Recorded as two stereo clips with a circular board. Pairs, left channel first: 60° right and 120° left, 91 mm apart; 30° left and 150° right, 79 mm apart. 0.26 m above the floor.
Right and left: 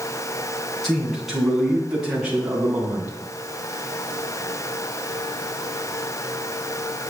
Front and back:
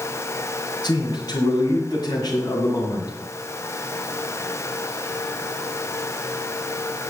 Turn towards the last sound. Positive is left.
turn(degrees=55)